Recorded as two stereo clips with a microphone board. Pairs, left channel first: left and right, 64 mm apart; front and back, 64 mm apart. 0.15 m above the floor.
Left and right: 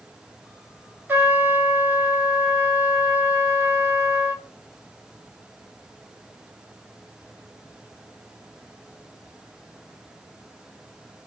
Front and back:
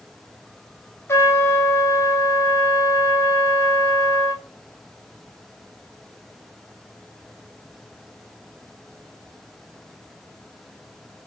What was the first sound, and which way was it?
A trumpet, 40° right.